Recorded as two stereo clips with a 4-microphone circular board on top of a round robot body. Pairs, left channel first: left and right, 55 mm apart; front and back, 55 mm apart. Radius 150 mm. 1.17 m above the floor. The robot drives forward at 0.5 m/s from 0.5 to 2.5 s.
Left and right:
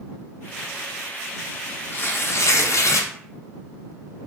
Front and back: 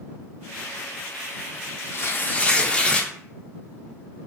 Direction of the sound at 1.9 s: 40° left.